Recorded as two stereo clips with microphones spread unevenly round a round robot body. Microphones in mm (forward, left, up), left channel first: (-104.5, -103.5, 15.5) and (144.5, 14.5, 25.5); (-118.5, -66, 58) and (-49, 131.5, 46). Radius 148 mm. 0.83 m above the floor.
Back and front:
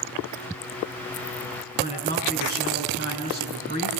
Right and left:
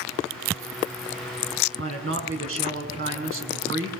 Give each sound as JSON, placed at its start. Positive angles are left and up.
{"t": 1.8, "sound": "a man speaking", "azimuth_deg": 85, "distance_m": 6.0}